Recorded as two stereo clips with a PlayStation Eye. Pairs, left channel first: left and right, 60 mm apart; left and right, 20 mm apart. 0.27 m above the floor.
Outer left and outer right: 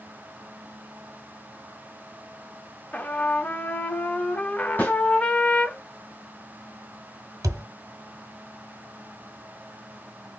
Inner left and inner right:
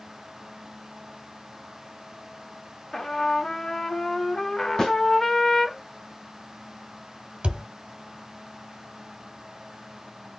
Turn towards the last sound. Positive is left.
turn(degrees=-85)